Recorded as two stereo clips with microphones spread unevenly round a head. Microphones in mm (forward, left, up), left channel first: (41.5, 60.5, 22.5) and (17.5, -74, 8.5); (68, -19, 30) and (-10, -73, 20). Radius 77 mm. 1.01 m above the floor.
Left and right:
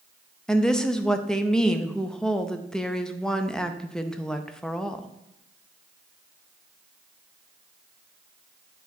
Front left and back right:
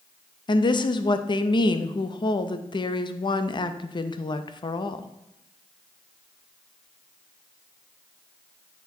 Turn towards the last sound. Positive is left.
turn(degrees=-5)